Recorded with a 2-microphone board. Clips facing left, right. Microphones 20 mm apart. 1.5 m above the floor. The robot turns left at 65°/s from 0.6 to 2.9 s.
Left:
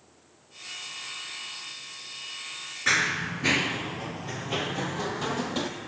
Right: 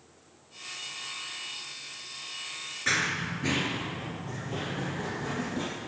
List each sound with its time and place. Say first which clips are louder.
2.9 s running footsteps: left 3 dB; 15° left (ahead or behind), 1.6 m; by 5.7 s 65° left (ahead or behind), 3.5 m